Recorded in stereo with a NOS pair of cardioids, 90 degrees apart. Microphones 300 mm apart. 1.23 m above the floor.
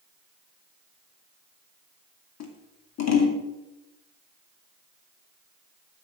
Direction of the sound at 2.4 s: 60° left.